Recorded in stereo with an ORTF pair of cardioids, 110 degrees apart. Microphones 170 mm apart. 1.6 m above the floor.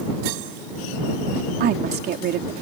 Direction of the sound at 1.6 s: 70° right.